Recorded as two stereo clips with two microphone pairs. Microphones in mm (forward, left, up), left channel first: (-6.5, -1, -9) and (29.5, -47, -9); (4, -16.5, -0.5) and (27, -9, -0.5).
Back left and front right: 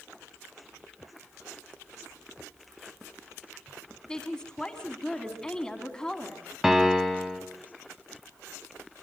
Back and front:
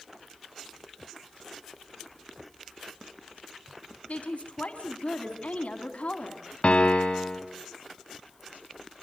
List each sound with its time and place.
4.1 s a woman speaking: 155° right, 2.5 m
6.6 s a piano: 135° right, 1.8 m